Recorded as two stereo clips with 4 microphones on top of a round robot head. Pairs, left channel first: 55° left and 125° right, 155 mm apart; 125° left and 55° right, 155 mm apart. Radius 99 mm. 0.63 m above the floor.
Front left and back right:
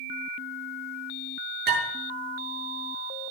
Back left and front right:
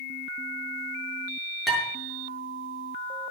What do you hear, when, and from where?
1.7 s dishes clattering: 145° right, 7 m